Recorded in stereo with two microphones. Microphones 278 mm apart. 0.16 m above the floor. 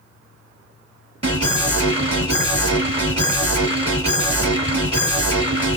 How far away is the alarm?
About 2 m.